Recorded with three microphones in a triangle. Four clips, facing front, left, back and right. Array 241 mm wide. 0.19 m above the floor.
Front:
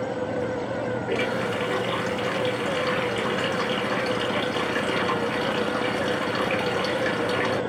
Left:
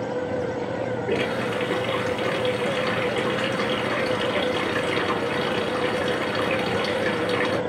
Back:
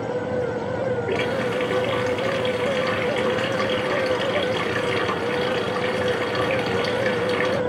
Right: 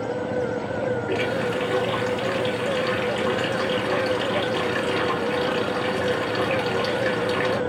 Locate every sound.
1.1 s a running tap: 110° left, 2.0 m